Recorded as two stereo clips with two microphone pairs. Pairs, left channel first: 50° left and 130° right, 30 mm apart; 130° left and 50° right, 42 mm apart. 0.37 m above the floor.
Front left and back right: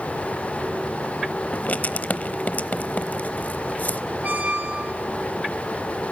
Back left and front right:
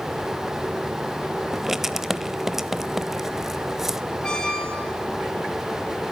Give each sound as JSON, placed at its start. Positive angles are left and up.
{"t": 1.5, "sound": "writing", "azimuth_deg": 35, "distance_m": 0.8}
{"t": 4.2, "sound": "a squeak", "azimuth_deg": -160, "distance_m": 3.5}